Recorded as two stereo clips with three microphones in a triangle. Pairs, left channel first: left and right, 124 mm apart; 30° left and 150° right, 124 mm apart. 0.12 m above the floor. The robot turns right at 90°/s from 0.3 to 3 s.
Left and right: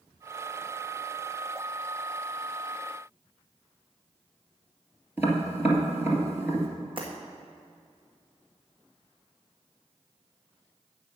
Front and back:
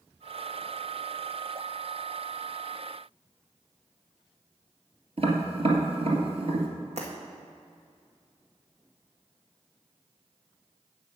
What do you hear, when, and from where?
5.2 s tapping: 160° right, 2.0 m
7.0 s breaking glass: 130° right, 2 m